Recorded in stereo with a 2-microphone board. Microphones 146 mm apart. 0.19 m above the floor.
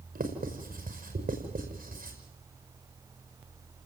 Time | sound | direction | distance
0.1 | writing | 80° right | 5.5 m